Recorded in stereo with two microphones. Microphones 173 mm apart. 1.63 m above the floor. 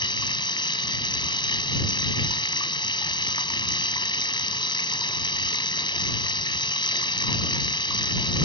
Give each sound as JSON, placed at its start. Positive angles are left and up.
{"t": 0.0, "sound": "running water", "side_deg": 25}